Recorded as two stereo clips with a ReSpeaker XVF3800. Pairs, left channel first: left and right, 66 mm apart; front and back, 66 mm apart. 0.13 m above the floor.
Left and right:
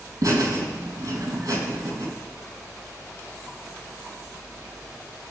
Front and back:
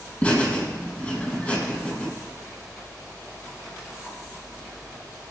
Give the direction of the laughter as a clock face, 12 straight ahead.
2 o'clock.